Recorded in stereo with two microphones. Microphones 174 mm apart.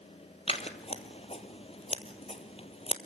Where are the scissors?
35° left (ahead or behind), 1.4 m.